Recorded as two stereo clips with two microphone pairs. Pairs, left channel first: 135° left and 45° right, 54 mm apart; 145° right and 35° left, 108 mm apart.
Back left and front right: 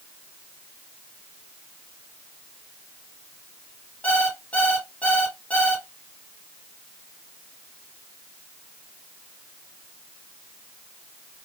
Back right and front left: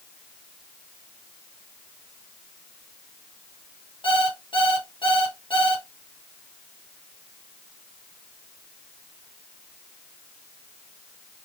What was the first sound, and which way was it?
An alarm clock, 165° right.